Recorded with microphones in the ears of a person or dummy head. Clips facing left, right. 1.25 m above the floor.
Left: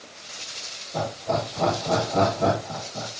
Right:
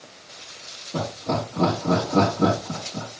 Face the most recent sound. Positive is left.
turn(degrees=-75)  # may be behind; listen again after turning